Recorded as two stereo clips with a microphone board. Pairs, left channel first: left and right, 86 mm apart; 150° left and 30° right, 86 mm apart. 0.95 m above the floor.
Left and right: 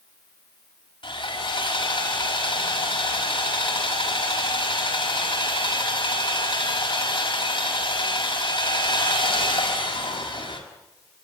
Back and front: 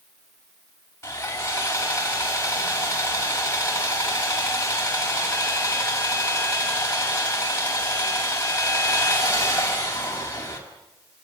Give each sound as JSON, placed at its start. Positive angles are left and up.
{"t": 1.0, "sound": "sawing", "azimuth_deg": 90, "distance_m": 5.5}